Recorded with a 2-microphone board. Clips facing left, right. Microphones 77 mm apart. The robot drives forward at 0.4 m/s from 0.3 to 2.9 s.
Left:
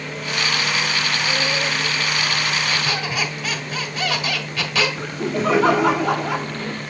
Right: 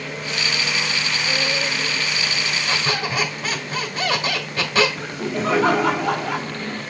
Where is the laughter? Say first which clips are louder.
Left 2 dB; centre (ahead or behind), 1.5 m.